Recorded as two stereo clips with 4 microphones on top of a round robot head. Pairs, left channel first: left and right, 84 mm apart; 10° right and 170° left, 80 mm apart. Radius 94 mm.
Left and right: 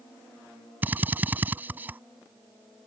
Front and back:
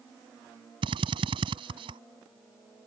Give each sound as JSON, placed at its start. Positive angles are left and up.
{"t": 0.8, "sound": "a drill", "azimuth_deg": -160}